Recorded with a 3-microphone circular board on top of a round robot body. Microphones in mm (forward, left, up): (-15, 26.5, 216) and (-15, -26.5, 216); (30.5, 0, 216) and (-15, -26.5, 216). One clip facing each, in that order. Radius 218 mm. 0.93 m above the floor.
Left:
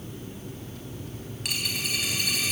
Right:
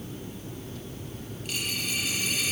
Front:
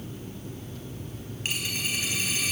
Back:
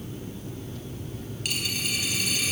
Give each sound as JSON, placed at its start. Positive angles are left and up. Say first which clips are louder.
{"t": 1.4, "sound": "a dropped coin", "louder": "left 1 dB, even", "azimuth_deg": 90, "distance_m": 4.5}